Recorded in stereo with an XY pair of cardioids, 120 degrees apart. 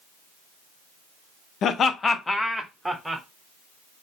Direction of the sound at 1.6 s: 55° left.